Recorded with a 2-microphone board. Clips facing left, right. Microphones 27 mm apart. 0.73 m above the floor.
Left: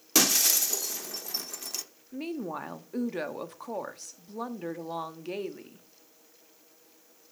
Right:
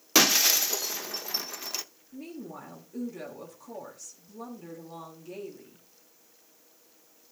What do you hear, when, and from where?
0.1 s breaking glass: 25° right (ahead or behind), 0.6 m
2.1 s a woman speaking: 55° left (ahead or behind), 1.2 m